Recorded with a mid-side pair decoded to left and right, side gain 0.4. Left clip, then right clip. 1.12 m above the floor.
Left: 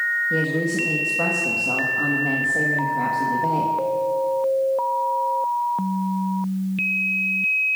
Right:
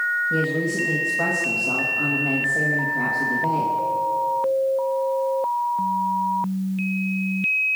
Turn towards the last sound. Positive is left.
turn(degrees=15)